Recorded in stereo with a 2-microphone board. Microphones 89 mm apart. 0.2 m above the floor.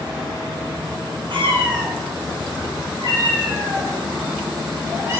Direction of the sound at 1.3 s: 70° right (ahead or behind).